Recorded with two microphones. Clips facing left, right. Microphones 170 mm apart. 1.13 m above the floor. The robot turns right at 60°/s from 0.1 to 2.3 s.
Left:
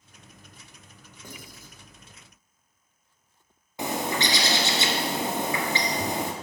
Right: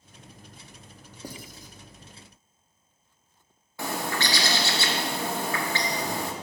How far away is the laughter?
No laughter in this recording.